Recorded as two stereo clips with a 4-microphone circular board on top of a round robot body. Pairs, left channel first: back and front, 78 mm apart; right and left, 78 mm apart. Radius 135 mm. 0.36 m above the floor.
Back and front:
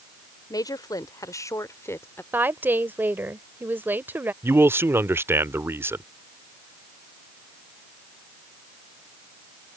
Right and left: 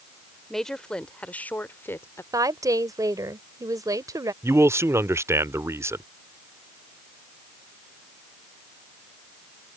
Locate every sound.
0.5 s a woman speaking: 175° right; by 2.2 s 130° right
2.3 s a woman speaking: 60° left
4.4 s a man speaking: 50° left